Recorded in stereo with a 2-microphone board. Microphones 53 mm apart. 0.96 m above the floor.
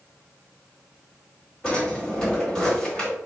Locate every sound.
1.6 s a drawer: 15° left (ahead or behind), 1.7 m